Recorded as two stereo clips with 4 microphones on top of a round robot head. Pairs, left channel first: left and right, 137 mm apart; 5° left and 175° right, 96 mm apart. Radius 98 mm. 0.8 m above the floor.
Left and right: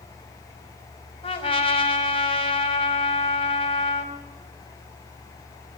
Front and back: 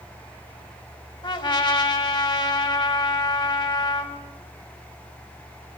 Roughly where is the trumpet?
Ahead left.